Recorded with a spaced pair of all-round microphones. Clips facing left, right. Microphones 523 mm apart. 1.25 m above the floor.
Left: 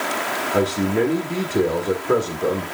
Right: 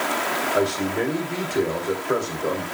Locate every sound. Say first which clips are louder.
0.5 s a man speaking: left 4 dB; 70° left (ahead or behind), 1.4 m